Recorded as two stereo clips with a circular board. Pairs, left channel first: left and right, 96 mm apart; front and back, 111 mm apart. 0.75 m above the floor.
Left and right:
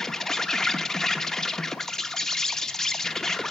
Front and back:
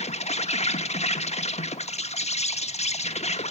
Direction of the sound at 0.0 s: 5° left.